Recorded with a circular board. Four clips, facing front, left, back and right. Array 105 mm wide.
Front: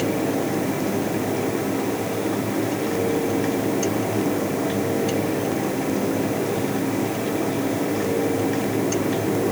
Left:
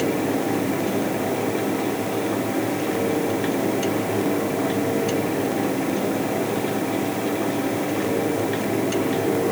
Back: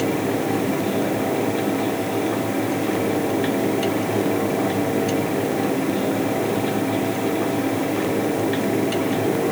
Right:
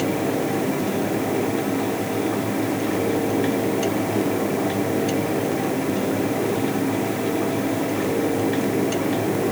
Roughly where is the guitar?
I don't hear a guitar.